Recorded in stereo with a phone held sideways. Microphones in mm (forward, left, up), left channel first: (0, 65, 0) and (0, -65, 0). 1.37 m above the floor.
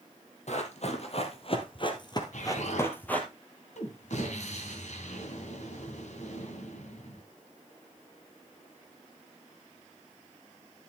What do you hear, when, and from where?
0.5 s running footsteps: 60° left (ahead or behind), 2.5 m; by 3.3 s 10° left (ahead or behind), 2 m
2.3 s an explosion: 65° left (ahead or behind), 3 m